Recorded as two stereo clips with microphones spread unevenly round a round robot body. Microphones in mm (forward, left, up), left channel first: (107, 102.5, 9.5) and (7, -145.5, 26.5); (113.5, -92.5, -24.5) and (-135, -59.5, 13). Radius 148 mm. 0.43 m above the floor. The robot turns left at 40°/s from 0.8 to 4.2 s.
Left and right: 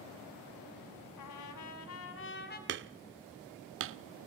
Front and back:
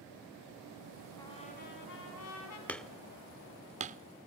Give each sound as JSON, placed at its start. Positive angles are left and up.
{"t": 1.2, "sound": "a trumpet", "azimuth_deg": 70, "distance_m": 3.5}
{"t": 2.7, "sound": "hammering", "azimuth_deg": -80, "distance_m": 0.6}